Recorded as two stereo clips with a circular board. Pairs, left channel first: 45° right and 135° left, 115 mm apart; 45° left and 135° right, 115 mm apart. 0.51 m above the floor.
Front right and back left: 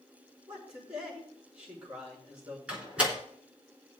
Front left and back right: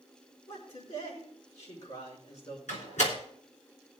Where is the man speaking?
55° left, 6 m.